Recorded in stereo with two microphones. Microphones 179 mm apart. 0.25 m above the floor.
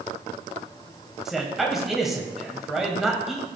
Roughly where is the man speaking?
Centre.